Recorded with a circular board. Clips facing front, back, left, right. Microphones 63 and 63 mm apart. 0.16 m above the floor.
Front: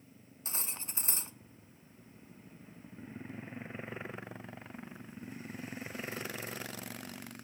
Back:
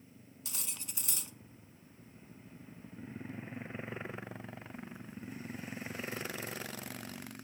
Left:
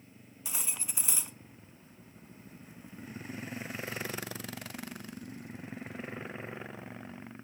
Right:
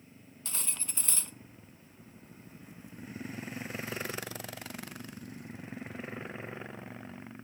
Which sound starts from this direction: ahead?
Cutlery clinking, at 0.5 s.